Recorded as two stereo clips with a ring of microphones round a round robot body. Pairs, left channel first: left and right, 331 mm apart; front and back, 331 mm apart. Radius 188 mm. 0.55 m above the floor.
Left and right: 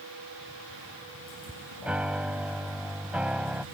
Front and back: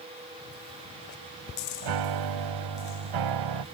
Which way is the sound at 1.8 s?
175° right.